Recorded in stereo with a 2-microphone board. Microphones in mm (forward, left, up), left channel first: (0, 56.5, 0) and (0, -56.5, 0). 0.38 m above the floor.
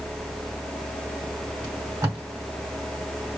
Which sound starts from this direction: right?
Tape being pulled, at 1.6 s.